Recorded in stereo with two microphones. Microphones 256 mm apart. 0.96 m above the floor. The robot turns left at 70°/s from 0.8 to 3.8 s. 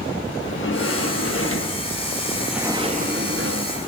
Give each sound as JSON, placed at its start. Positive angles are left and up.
{"t": 0.4, "sound": "a sliding door", "azimuth_deg": 115, "distance_m": 1.6}